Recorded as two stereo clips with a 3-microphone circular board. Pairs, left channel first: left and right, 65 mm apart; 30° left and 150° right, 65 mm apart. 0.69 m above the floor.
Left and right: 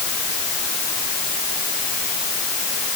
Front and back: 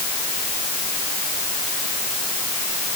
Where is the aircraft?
No aircraft in this recording.